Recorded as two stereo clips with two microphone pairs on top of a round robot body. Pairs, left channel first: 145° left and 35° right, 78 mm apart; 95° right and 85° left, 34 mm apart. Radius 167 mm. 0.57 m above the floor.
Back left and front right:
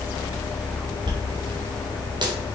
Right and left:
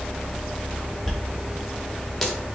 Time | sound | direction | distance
1.1 | a dropped coin | 15° right | 1.2 m